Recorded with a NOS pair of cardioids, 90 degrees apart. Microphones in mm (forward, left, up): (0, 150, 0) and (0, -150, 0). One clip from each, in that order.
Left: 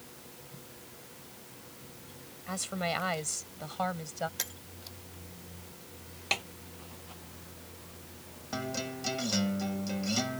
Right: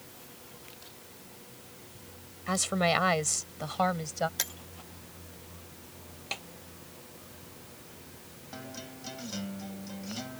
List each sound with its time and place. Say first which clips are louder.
2.5 s a woman speaking: right 6 dB; 50° right; by 4.3 s 35° right
4.4 s breaking glass: right 3 dB; 25° right
6.3 s a snare drum: left 7 dB; 45° left
8.5 s a guitar: left 8 dB; 55° left